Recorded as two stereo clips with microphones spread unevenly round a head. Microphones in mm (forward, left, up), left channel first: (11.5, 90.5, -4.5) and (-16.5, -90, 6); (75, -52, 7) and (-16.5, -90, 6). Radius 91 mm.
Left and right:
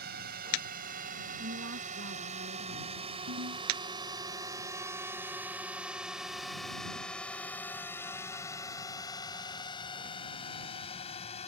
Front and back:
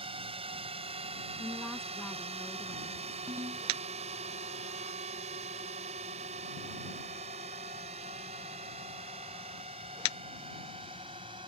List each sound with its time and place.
0.0 s a drone: 135° right; by 11.5 s 140° left
1.4 s a woman speaking: 65° right
3.3 s a ringtone: 100° right